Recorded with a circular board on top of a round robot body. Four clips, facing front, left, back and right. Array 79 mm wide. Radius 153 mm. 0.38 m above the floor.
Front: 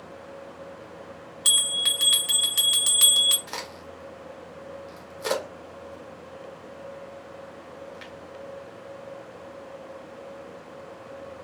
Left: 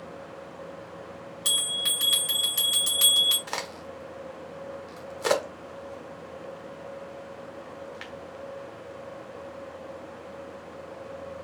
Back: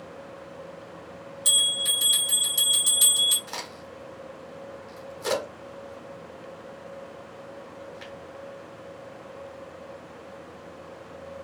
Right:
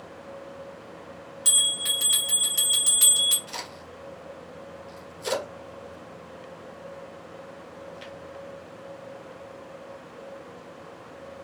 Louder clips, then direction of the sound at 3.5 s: Left 4 dB, front 1 dB; 80° left.